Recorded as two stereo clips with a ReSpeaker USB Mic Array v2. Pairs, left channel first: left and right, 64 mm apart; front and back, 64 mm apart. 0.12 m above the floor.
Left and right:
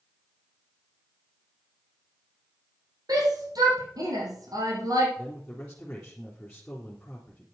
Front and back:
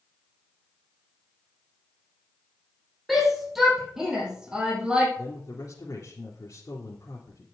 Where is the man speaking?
15° left, 3.5 m.